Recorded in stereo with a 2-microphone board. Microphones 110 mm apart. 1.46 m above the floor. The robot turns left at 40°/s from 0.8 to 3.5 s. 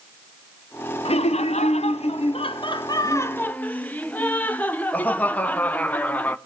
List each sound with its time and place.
1.1 s laughter: 115° left, 0.8 m; by 6.4 s 15° left, 0.8 m